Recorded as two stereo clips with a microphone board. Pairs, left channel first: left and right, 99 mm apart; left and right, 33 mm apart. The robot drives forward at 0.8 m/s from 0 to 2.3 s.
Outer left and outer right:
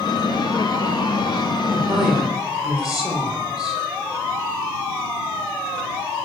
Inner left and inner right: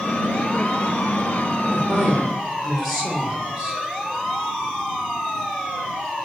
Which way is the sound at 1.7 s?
5° right (ahead or behind).